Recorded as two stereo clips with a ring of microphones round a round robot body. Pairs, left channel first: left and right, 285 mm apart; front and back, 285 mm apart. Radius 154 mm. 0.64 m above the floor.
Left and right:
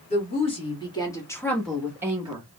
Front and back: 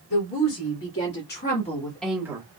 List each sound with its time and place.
0.1 s a woman speaking: 25° left, 2 m; by 2.5 s 135° right, 1.1 m